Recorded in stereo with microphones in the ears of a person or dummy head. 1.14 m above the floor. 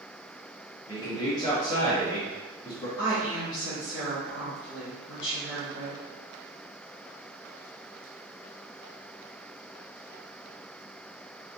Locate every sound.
0.9 s a man speaking: 30° left (ahead or behind), 0.8 m
3.0 s a woman speaking: 30° left (ahead or behind), 1.7 m